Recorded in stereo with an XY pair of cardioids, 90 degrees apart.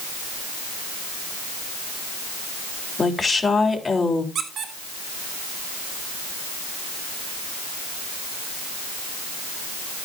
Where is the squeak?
70° right, 1.8 m.